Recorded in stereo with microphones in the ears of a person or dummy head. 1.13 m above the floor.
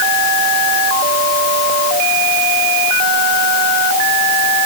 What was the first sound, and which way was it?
Only background noise.